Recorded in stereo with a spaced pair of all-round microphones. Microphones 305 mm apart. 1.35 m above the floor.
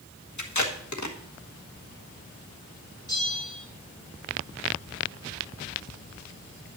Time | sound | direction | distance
0.4 | tape being pulled | 65° left (ahead or behind) | 1.3 m
3.1 | a bell | 15° left (ahead or behind) | 6.5 m